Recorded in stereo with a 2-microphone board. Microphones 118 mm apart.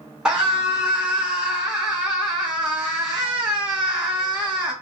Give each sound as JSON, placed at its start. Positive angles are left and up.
{"t": 0.2, "sound": "a scream", "side_deg": -5, "distance_m": 1.2}